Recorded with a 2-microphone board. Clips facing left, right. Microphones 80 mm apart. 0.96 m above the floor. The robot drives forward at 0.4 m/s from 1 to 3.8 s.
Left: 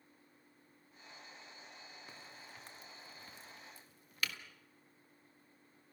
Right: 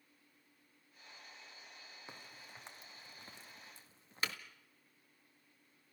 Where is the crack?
20° right (ahead or behind), 2 m; by 4.4 s 30° right (ahead or behind), 1.5 m.